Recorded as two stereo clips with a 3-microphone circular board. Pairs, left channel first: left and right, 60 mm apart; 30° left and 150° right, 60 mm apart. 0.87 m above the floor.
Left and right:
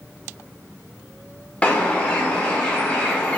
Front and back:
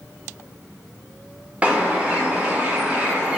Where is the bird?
150° left, 0.6 m.